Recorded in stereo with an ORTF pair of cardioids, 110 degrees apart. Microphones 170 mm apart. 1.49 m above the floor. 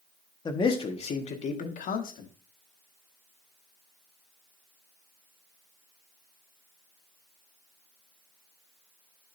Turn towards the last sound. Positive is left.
turn(degrees=65)